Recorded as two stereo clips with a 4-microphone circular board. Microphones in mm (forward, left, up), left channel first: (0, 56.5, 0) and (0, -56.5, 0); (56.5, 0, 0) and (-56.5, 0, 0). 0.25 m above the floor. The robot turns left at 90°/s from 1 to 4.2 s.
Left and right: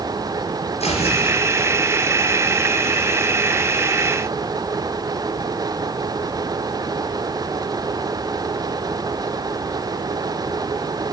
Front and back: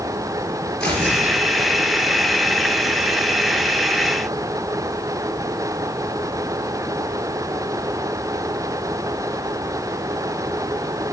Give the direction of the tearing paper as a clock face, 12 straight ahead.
9 o'clock.